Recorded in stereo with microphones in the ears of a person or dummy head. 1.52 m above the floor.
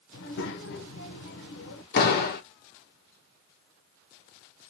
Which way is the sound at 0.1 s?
65° left (ahead or behind).